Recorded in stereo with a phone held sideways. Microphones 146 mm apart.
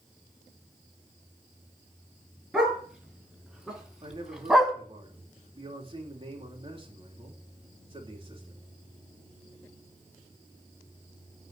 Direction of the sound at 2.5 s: 5° right (ahead or behind).